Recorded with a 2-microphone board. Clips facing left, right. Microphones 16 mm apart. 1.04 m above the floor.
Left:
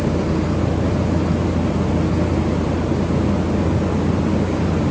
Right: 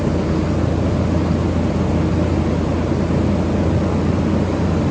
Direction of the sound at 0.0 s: 35° right (ahead or behind).